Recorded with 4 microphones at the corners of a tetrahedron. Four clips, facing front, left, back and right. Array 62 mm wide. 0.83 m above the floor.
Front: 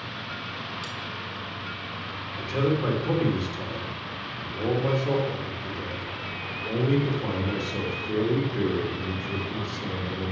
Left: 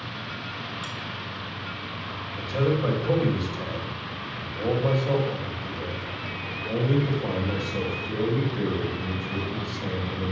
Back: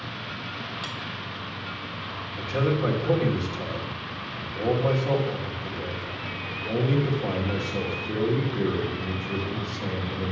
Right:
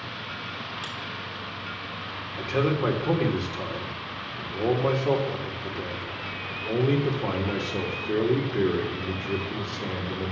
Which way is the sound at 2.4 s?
95° right.